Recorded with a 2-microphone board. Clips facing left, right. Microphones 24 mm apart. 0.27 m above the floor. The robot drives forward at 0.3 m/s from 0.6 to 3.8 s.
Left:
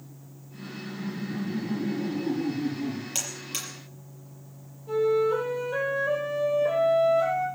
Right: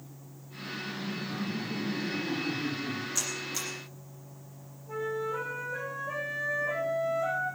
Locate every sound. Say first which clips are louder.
0.5 s laughter: right 1 dB; 70° left (ahead or behind), 6.5 m; by 3.0 s 75° left (ahead or behind), 6 m
3.1 s a buzzer: even; 80° left, 6 m
4.9 s a flute: left 10 dB; 80° left, 9.5 m